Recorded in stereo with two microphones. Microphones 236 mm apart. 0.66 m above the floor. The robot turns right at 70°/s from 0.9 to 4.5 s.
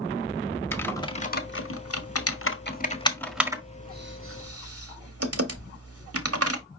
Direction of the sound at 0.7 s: 10° left (ahead or behind).